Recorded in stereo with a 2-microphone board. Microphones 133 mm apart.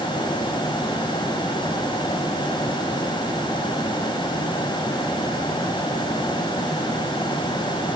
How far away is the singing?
I don't hear singing.